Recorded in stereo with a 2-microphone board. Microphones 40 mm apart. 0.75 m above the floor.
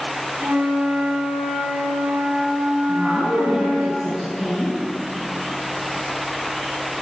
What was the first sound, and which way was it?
A flute, 60° right (ahead or behind).